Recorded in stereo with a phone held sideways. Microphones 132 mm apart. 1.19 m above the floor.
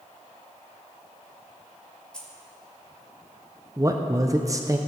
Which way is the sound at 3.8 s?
25° right (ahead or behind).